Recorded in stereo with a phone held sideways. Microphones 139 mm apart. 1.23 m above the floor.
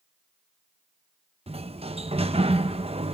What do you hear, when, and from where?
1.5 s a sliding door: 45° right (ahead or behind), 0.8 m